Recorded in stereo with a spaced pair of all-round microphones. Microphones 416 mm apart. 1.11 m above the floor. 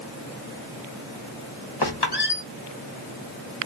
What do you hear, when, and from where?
1.8 s a squeak: 70° left (ahead or behind), 1.0 m